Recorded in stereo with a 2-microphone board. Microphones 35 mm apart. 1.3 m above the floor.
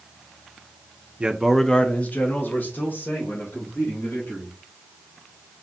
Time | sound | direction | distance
1.2 | a man speaking | 30° right (ahead or behind) | 0.6 m